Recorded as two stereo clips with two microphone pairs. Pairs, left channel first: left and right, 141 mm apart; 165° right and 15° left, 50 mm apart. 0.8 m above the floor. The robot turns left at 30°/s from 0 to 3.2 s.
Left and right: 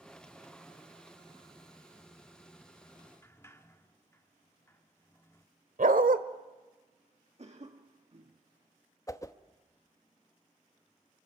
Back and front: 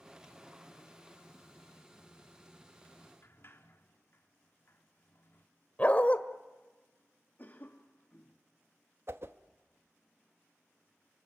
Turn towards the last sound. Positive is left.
turn(degrees=30)